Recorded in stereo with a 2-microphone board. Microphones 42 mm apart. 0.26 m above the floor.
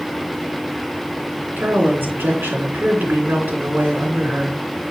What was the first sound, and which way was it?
A woman speaking, 60° right (ahead or behind).